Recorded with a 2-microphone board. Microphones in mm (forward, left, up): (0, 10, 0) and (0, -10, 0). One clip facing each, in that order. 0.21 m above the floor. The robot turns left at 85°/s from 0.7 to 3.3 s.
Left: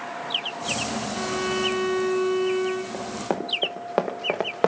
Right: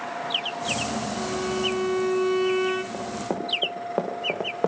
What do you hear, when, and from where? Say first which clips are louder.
1.2 s a violin: left 3 dB; 90° left, 1.0 m; by 2.8 s 50° right, 1.0 m
2.9 s running footsteps: left 1 dB; 10° left (ahead or behind), 2 m; by 4.7 s 65° left (ahead or behind), 1.5 m